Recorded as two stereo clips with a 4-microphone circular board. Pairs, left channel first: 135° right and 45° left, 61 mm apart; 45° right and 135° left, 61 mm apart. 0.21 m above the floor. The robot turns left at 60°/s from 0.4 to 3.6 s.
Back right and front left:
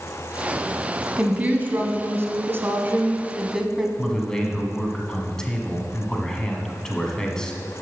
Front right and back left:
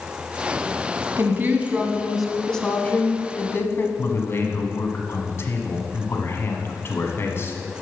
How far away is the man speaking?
About 1.3 m.